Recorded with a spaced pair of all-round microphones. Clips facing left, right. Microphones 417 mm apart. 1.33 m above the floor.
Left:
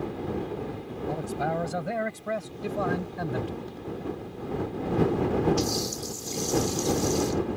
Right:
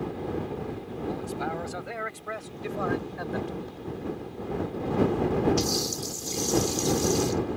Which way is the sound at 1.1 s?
65° left (ahead or behind).